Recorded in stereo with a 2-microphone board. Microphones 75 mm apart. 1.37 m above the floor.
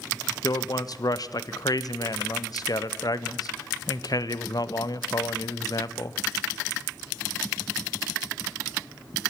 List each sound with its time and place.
0.4 s a man speaking: 55° left (ahead or behind), 0.5 m